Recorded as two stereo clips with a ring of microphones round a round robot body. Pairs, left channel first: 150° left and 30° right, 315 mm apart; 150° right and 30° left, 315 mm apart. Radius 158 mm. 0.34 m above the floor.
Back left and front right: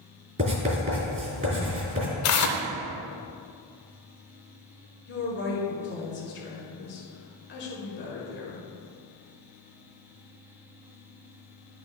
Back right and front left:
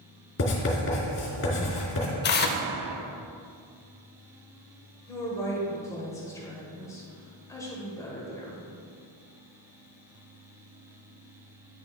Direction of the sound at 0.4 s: 100° right.